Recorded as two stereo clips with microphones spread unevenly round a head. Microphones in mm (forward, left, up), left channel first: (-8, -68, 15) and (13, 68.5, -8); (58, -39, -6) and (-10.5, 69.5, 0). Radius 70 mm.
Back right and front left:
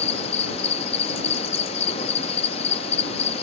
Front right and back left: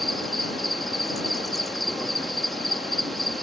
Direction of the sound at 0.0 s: 145° right.